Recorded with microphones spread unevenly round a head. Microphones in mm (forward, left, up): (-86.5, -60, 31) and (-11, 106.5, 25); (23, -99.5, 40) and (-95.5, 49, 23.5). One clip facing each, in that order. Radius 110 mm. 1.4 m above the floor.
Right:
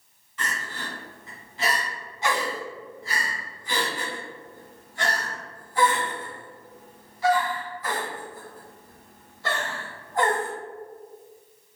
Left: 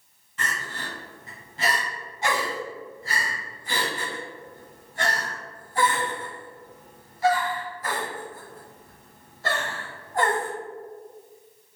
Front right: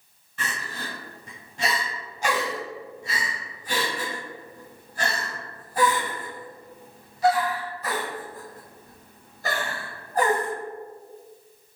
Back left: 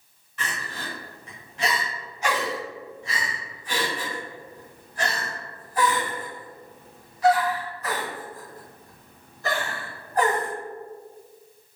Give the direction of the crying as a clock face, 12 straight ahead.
12 o'clock.